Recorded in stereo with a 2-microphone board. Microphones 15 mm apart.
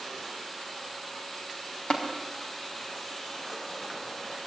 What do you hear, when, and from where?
1.9 s tapping: 80° left, 4.5 m